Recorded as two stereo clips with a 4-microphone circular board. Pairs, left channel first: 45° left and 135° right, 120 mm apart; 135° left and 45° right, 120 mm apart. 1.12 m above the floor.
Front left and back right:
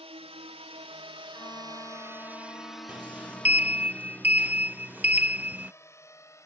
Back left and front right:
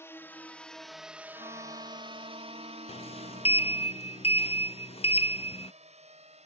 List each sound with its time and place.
0.0 s a drone: 160° right; by 6.5 s 20° right
1.3 s a violin: 15° right
2.9 s a sliding door: 150° left